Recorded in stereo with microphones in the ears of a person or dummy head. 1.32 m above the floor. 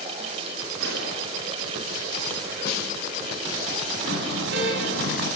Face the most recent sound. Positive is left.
turn(degrees=-70)  # may be behind; listen again after turning